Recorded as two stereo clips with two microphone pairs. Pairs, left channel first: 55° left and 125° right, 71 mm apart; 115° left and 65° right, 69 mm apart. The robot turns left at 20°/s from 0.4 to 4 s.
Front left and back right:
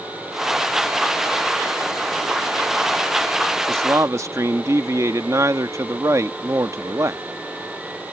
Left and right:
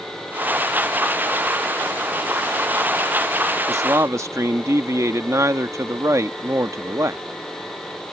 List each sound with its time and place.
3.7 s a man speaking: 85° right; by 7.2 s 90° right